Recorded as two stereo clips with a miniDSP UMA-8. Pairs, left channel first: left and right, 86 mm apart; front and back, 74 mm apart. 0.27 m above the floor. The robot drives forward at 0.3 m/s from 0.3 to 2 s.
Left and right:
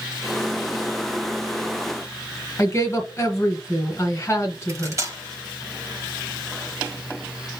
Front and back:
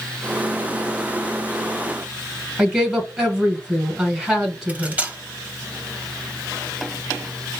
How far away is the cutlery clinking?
About 0.7 m.